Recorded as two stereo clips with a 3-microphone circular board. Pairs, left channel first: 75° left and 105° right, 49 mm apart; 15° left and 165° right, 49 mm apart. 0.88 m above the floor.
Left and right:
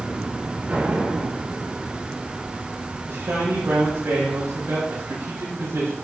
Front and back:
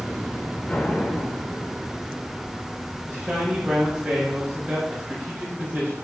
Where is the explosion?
50° right, 1.7 m.